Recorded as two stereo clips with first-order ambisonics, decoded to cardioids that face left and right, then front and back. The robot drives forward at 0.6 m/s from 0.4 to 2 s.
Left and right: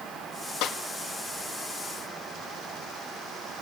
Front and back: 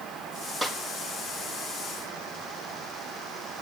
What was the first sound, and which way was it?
A snare drum, 100° left.